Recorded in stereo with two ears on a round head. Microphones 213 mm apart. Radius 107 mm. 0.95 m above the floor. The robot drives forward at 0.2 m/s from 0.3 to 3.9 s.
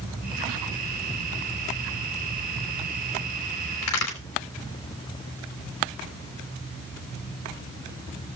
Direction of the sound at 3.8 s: 80° left.